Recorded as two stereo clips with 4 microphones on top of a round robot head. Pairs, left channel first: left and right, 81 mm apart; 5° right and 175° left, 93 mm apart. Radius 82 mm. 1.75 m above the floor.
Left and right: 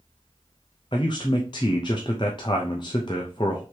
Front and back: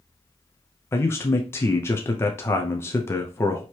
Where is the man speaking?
45° left, 0.5 m.